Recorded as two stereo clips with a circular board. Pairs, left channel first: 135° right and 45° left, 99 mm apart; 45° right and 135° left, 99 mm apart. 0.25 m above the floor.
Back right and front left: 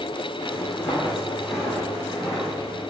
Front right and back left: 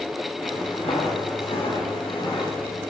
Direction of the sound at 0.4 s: 65° right.